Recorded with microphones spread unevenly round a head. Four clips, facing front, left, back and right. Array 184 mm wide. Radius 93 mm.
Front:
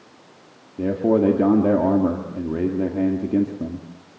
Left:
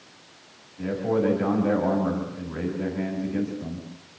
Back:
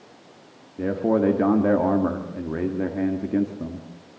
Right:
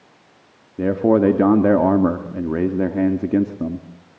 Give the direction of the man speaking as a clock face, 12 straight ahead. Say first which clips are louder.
Right 9 dB, front 3 dB; 2 o'clock.